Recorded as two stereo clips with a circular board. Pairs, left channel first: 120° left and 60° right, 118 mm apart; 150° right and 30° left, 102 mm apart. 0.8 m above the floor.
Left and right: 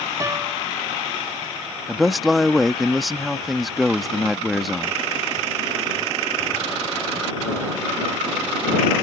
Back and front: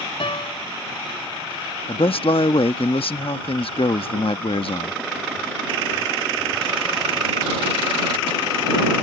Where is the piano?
120° right.